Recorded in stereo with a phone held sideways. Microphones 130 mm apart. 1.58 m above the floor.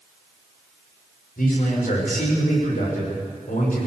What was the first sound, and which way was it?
A man speaking, 80° left.